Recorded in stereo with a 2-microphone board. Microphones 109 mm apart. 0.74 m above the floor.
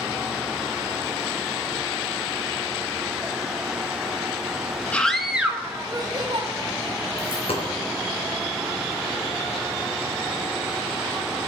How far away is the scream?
About 1.4 m.